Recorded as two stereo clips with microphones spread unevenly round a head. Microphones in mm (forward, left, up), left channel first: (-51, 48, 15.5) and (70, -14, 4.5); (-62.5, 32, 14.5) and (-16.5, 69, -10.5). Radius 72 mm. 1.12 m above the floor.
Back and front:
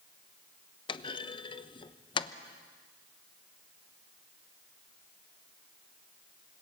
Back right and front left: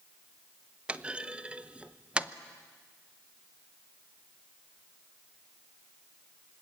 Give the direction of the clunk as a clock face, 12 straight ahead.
9 o'clock.